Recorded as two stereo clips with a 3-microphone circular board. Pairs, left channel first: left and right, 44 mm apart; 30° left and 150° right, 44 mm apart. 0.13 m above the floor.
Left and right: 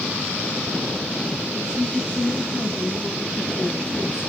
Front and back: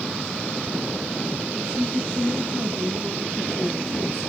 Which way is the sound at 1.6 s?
175° right.